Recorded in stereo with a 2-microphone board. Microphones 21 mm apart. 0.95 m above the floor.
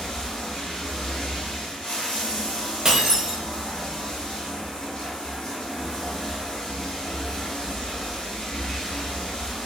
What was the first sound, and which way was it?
Running water, 35° left (ahead or behind).